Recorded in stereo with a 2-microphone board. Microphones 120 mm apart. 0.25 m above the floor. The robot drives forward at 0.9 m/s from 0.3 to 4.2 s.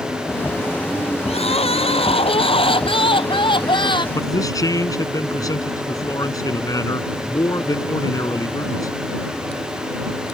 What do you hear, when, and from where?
1.3 s crying: 60° left (ahead or behind); by 4.0 s 40° left (ahead or behind)
4.2 s a man speaking: 30° left (ahead or behind)